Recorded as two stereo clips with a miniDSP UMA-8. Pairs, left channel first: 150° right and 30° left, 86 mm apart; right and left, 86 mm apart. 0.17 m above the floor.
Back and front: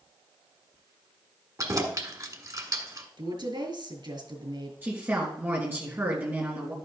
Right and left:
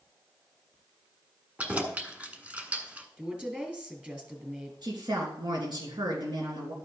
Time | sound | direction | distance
1.6 | keys jangling | 25° left | 1.2 m
3.2 | a woman speaking | 15° left | 2.5 m
4.8 | a woman speaking | 90° left | 3 m